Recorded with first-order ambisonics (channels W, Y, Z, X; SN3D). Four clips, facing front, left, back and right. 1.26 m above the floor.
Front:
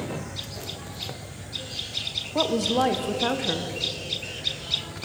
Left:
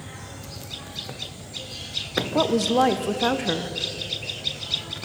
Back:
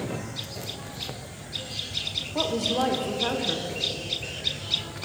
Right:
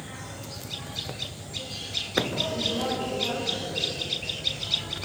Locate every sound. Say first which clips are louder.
2.4 s a woman speaking: left 8 dB, front 3 dB; 75° left, 0.9 m